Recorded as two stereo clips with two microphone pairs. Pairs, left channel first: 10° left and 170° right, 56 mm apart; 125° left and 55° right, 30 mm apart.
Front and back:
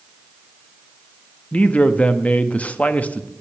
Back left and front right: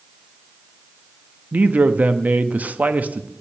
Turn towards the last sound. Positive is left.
turn(degrees=-50)